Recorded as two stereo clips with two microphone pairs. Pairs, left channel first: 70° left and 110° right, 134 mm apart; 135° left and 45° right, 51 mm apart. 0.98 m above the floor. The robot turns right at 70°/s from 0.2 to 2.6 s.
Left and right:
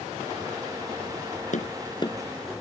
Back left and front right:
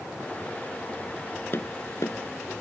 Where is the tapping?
90° left; by 2.5 s 160° left.